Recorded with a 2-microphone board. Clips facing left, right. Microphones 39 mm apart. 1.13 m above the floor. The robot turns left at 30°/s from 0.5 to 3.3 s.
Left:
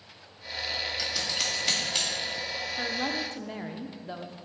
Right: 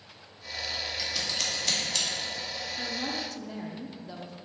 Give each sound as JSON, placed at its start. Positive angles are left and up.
{"t": 1.0, "sound": "scissors", "side_deg": -5, "distance_m": 1.4}
{"t": 2.8, "sound": "a woman speaking", "side_deg": 35, "distance_m": 0.5}